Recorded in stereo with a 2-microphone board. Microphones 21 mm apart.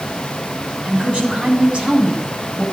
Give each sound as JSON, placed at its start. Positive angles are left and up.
{"t": 0.8, "sound": "a woman speaking", "side_deg": -60, "distance_m": 8.0}